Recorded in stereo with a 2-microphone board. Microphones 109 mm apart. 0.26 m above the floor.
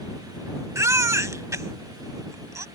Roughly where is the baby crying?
Right.